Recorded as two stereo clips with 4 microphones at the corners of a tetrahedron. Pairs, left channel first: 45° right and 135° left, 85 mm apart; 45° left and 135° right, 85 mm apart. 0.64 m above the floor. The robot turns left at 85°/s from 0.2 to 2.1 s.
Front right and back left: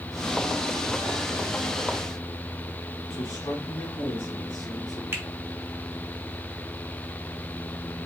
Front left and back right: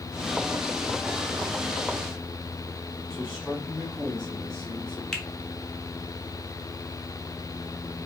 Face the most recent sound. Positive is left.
turn(degrees=125)